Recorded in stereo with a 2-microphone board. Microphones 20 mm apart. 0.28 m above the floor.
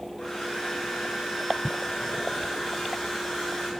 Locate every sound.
0.2 s a hair dryer: 20° left (ahead or behind), 8 m